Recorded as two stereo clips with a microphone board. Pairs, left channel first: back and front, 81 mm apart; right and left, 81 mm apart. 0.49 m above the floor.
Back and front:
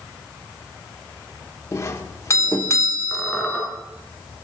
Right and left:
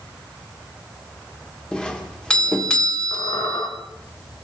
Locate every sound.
1.7 s a doorbell: 165° right, 1.3 m
3.1 s a squeak: 95° right, 3.5 m